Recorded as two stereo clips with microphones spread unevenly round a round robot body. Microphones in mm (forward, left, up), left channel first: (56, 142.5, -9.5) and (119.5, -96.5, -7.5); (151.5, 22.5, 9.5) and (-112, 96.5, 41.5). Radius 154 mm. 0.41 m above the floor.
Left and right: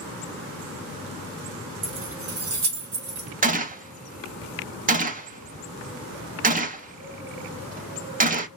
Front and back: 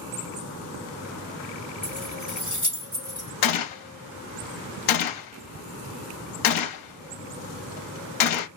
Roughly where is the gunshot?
Ahead.